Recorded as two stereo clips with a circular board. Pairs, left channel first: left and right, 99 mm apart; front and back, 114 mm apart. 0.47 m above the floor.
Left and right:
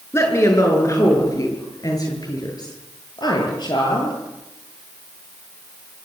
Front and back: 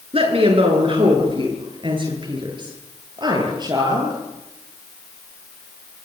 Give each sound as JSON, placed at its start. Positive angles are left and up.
{"t": 0.1, "sound": "a woman speaking", "azimuth_deg": 150, "distance_m": 8.0}